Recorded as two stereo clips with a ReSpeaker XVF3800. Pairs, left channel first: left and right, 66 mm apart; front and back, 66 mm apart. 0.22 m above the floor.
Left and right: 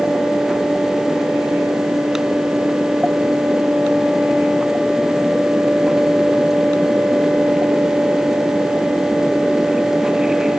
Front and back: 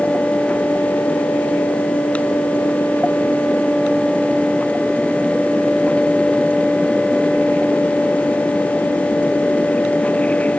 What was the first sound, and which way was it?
Only background noise.